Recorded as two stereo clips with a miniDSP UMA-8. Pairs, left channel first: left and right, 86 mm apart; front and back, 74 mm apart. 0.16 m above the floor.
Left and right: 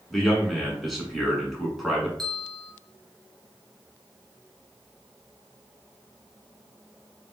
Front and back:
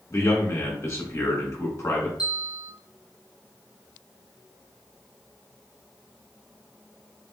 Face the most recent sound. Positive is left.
turn(degrees=5)